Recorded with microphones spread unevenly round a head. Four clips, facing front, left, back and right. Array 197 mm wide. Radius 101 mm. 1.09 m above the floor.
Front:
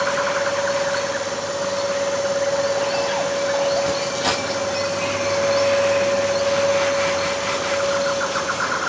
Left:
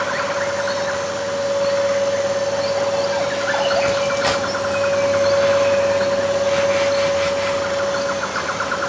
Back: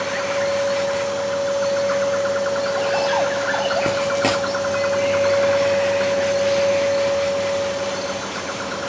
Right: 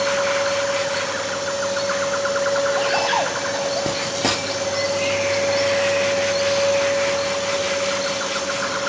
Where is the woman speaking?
I don't hear a woman speaking.